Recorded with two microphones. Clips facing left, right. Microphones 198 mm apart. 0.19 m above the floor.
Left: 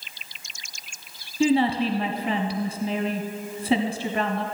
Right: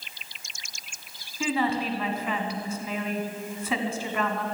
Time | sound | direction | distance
1.4 | a woman speaking | 35° left (ahead or behind) | 1.1 m